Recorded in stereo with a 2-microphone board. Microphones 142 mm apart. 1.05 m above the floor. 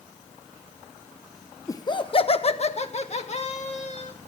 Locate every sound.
1.7 s laughter: 20° left (ahead or behind), 0.7 m; by 4.1 s 50° left (ahead or behind), 3 m